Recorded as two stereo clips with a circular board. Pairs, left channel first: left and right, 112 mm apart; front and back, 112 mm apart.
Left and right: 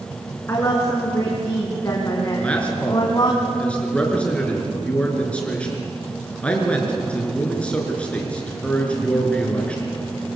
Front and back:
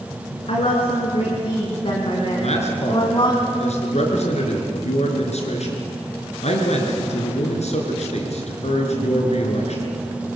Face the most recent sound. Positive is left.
turn(degrees=10)